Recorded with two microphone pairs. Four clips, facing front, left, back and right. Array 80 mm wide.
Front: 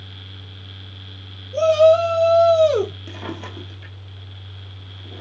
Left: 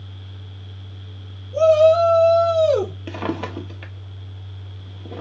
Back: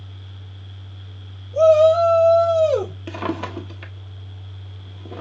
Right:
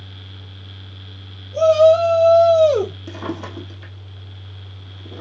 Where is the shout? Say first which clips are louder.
Right 1 dB, back 1 dB; straight ahead, 2.5 m.